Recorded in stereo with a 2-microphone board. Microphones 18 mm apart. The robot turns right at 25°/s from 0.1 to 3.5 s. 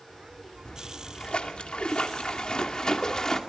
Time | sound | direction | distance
0.7 | a splash | 75° left | 2.5 m